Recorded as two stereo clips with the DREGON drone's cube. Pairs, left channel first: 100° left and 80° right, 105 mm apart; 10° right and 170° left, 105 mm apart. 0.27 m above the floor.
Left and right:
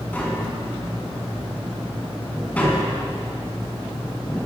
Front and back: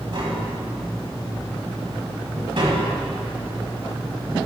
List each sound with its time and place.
0.1 s tapping: 170° left, 2.5 m